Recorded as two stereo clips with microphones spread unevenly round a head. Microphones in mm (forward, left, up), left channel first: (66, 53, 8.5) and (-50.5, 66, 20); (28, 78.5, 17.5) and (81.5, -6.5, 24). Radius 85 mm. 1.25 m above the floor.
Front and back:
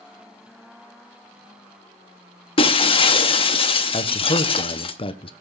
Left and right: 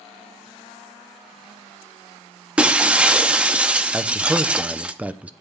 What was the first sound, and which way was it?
Breaking glass, 10° left.